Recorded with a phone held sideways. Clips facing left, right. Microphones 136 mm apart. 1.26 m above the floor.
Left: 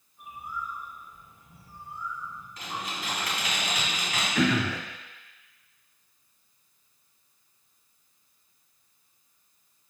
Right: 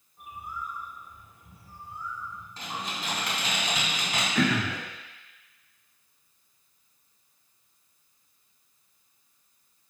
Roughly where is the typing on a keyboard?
Right.